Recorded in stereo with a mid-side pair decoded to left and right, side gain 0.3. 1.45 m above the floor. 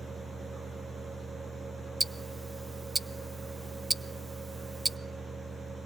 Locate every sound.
0.0 s a fan: 65° right, 2.5 m
2.0 s ticking: 30° right, 0.7 m